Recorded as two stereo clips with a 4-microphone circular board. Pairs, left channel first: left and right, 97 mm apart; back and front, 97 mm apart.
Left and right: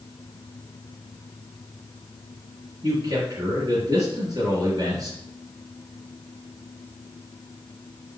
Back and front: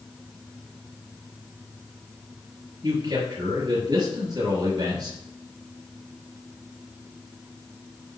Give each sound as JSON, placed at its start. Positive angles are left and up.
{"t": 2.8, "sound": "a man speaking", "azimuth_deg": -45, "distance_m": 4.0}